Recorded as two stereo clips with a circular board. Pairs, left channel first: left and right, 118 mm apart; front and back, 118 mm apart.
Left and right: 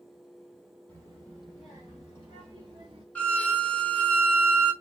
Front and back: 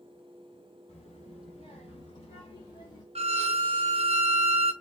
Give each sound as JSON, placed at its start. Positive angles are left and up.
{"t": 0.9, "sound": "a child speaking", "azimuth_deg": 15, "distance_m": 1.6}
{"t": 3.1, "sound": "a violin", "azimuth_deg": 170, "distance_m": 0.5}